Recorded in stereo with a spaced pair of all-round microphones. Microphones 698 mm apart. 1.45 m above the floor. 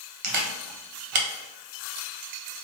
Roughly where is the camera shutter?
Right.